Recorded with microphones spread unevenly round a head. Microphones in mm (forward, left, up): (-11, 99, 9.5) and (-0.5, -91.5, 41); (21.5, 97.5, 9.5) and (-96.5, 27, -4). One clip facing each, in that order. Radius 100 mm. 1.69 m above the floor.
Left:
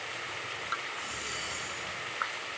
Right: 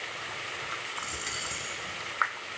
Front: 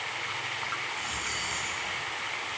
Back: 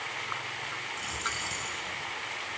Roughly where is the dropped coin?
Right.